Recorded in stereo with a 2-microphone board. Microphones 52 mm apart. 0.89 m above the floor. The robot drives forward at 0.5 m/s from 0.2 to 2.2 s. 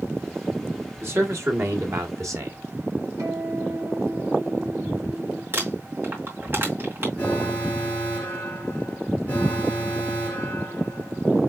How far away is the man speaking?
About 1.9 m.